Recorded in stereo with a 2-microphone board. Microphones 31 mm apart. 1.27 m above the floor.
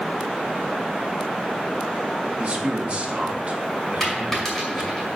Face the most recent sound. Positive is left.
turn(degrees=10)  # may be behind; listen again after turning